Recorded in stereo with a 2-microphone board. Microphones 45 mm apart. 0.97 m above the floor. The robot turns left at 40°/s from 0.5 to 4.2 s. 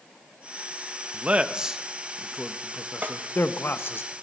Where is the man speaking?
30° right (ahead or behind), 1.0 m; by 4.0 s 60° left (ahead or behind), 1.0 m.